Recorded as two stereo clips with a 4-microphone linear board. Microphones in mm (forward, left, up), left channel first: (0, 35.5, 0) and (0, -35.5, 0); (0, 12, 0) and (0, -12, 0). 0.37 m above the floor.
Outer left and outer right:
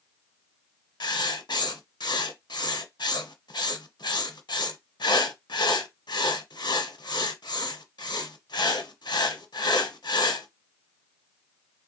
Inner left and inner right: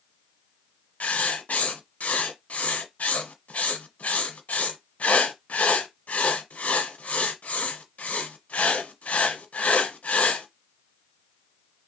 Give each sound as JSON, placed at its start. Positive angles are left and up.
{"t": 1.0, "sound": "writing", "side_deg": 85, "distance_m": 0.7}